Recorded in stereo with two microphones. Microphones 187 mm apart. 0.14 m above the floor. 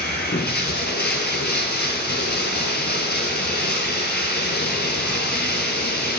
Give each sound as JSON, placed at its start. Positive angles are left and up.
{"t": 0.0, "sound": "running water", "side_deg": 55, "distance_m": 0.8}